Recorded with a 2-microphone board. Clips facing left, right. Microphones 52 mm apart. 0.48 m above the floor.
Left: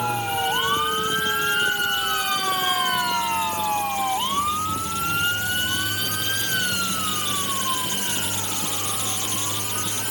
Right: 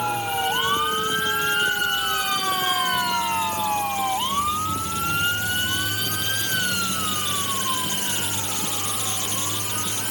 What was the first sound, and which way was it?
Only background noise.